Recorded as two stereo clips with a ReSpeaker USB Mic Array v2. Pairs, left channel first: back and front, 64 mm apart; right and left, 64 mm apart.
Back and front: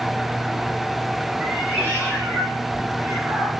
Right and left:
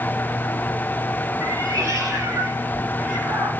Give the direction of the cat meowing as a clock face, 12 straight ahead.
10 o'clock.